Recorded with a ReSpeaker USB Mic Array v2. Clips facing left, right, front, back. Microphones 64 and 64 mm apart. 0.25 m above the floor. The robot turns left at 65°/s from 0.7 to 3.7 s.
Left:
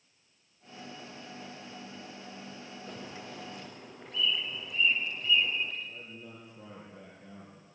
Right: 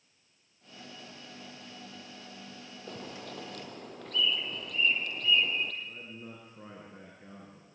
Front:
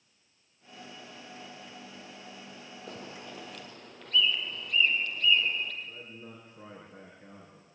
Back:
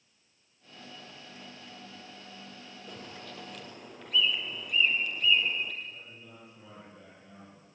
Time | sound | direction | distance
2.9 | a bird | 45° right | 3 m
5.8 | a man speaking | 45° right | 4 m